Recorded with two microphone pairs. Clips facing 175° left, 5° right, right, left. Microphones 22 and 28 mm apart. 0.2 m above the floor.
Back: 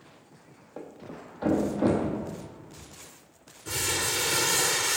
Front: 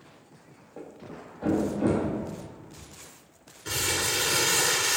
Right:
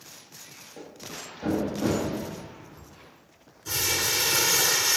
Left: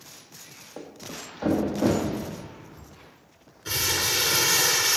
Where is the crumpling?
45° left, 1.1 m.